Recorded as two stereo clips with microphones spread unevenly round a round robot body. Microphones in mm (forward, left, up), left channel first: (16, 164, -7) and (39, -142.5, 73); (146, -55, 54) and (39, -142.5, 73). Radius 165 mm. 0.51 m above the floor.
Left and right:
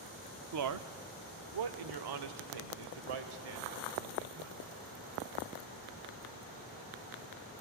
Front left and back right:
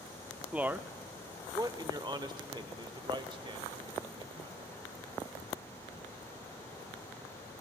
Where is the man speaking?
55° right, 0.9 m; by 4.7 s 85° right, 3 m.